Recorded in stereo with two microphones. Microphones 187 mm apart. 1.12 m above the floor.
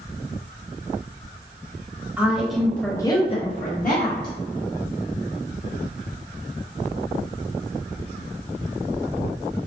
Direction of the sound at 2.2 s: 10° right (ahead or behind).